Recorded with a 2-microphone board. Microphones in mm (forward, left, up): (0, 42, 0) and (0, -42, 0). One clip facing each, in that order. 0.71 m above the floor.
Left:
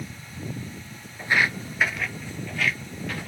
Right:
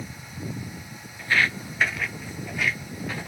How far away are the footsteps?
About 0.7 m.